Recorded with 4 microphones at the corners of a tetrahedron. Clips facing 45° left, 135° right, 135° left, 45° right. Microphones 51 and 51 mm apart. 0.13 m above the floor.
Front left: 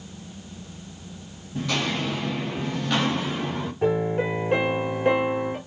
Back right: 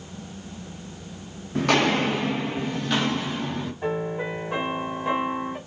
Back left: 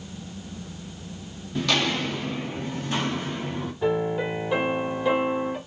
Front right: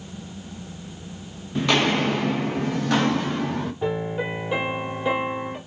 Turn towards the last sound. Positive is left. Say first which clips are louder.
# front left 6 dB, back left 4 dB
turn(degrees=35)